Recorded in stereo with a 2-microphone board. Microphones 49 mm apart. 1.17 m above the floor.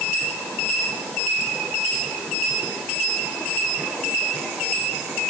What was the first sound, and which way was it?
Only background noise.